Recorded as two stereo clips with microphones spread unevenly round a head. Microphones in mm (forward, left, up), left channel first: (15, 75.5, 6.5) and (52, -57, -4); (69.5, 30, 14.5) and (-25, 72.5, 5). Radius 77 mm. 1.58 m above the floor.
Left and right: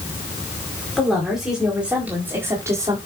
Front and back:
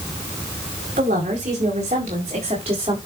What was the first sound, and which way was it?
A woman speaking, 165° right.